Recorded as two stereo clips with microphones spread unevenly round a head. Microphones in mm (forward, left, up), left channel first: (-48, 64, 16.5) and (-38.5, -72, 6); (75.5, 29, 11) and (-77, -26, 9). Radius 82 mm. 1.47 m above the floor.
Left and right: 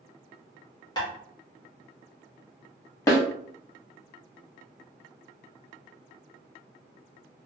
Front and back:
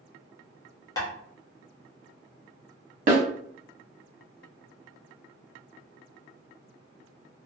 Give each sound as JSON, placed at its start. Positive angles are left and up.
{"t": 1.0, "sound": "tapping", "azimuth_deg": 75, "distance_m": 0.9}
{"t": 3.1, "sound": "a snare drum", "azimuth_deg": 160, "distance_m": 0.9}